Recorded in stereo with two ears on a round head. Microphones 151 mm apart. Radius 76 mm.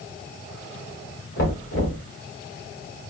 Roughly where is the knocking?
Left.